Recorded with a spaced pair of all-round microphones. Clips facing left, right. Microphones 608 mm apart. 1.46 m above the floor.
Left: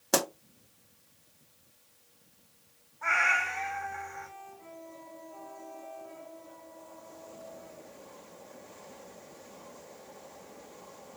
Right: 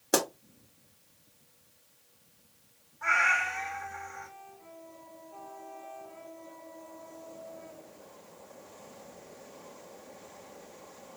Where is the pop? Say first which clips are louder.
Right 1 dB; 25° left (ahead or behind), 1.0 m.